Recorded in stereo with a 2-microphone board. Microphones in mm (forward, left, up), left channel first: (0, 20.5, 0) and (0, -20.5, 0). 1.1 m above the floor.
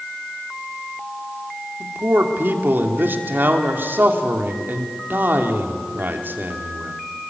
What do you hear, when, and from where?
1.8 s a man speaking: 55° right (ahead or behind), 3 m